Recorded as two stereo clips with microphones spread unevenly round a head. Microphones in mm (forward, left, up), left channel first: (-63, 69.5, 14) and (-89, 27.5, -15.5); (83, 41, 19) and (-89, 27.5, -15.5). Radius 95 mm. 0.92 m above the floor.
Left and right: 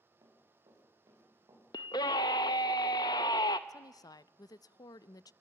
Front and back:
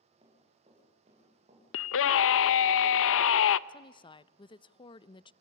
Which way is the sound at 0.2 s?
105° right.